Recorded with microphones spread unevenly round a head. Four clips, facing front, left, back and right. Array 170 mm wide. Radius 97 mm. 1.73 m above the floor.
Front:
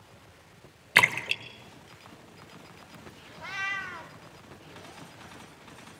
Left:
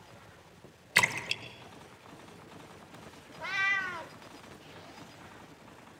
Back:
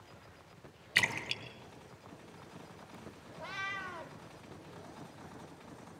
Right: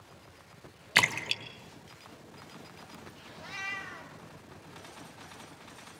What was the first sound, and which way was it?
A splash, 20° right.